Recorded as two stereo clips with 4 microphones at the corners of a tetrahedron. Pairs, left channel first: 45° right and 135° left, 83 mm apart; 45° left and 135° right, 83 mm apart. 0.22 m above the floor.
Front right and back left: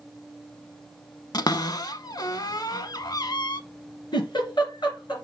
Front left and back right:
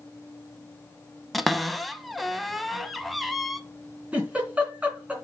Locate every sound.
1.3 s a cupboard door: 45° right, 0.6 m
4.1 s a giggle: 60° right, 2.5 m